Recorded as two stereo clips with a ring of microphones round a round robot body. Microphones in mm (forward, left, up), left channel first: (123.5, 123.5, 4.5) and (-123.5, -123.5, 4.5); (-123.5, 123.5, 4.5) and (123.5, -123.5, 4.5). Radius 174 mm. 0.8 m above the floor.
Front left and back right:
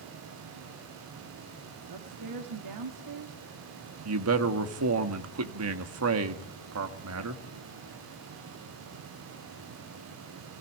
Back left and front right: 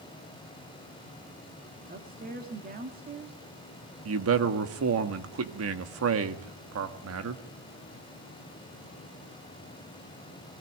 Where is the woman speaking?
110° right, 1.9 m.